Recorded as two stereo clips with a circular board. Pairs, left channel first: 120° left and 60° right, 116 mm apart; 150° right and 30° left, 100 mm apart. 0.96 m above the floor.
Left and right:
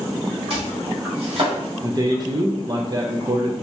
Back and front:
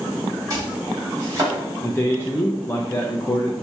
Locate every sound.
0.5 s chopping: 25° right, 2 m
1.8 s a man speaking: 95° right, 0.5 m